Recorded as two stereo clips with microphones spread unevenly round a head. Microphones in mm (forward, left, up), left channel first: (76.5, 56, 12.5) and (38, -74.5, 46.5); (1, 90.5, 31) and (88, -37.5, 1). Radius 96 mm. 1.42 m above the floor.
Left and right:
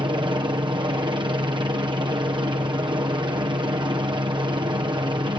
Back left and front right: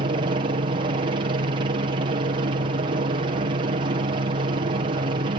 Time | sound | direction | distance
0.0 | a helicopter | 50° right | ?